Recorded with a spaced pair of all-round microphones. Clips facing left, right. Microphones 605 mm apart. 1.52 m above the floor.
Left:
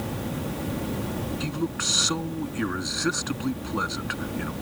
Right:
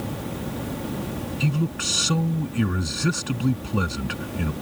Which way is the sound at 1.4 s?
55° right (ahead or behind).